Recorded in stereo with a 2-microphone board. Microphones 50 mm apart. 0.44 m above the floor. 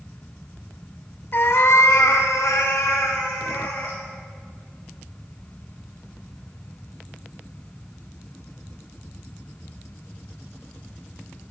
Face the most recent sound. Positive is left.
turn(degrees=65)  # may be behind; listen again after turning